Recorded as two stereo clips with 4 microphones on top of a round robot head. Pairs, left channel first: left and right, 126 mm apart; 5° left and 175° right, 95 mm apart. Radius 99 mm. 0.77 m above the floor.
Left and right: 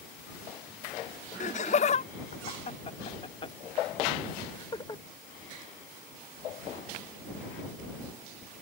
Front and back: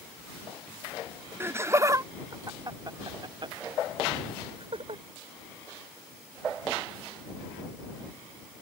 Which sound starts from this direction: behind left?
Laughter, at 1.4 s.